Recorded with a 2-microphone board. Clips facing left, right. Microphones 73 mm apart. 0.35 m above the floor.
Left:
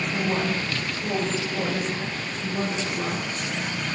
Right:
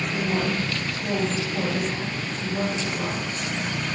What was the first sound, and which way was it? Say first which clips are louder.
A woman speaking: right 1 dB; 25° left (ahead or behind).